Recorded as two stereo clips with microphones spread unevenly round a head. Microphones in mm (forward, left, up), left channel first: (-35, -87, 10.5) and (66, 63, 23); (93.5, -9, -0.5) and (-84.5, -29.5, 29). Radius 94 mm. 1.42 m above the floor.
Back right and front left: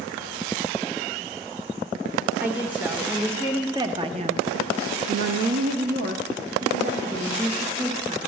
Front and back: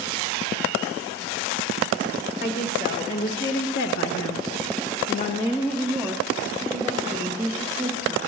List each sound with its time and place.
2.4 s a woman speaking: 30° right, 2 m; by 8.2 s 120° left, 2.5 m